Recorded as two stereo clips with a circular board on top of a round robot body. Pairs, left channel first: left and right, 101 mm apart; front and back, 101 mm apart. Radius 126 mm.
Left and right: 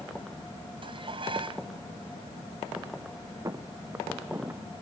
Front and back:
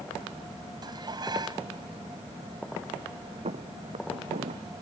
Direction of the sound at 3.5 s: 155° right.